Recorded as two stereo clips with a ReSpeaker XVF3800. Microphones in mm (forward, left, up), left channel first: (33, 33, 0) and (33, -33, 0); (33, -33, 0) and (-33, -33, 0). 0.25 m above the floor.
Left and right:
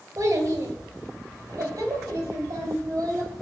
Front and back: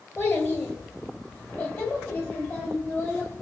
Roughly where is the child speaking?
Ahead right.